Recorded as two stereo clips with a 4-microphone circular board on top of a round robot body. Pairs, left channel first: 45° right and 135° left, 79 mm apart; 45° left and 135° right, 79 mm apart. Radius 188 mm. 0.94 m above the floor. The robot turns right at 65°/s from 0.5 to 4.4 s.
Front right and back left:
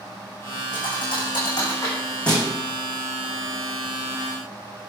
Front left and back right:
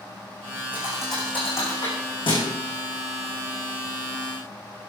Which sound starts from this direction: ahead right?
A thud, at 0.7 s.